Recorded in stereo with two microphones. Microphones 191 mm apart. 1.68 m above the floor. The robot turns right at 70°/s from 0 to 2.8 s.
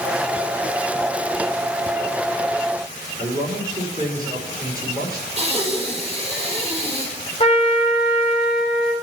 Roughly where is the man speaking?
Centre.